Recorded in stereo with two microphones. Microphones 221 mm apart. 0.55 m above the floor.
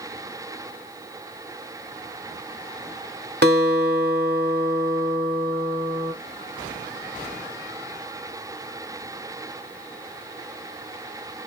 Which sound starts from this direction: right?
A guitar, at 3.4 s.